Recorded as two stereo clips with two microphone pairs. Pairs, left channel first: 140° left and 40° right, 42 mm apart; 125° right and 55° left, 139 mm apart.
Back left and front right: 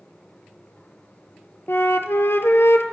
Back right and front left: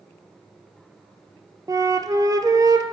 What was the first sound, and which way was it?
A flute, 120° left.